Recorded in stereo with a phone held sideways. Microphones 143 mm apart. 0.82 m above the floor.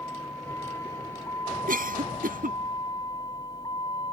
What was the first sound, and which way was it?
A vehicle, 15° left (ahead or behind).